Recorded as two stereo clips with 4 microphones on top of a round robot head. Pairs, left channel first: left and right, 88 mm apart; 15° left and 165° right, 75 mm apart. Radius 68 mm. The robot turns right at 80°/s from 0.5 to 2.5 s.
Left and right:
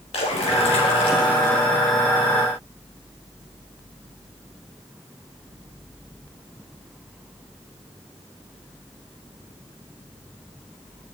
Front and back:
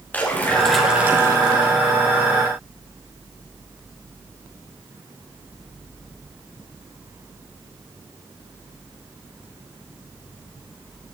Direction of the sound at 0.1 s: 85° left.